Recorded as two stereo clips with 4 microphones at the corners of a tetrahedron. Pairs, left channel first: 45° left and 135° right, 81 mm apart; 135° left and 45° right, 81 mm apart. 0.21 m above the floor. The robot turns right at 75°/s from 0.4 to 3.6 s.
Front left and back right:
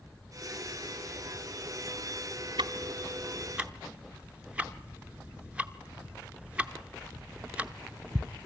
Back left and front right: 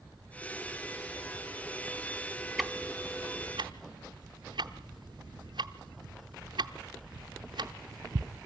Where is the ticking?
135° right, 0.7 m; by 8.3 s 60° right, 0.7 m.